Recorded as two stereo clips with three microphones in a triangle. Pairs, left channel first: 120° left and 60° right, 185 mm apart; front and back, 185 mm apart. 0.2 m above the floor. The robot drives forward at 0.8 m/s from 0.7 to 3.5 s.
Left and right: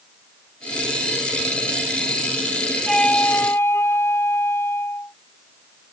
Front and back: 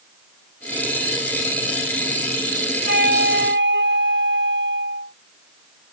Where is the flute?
150° right; by 5.1 s 165° right.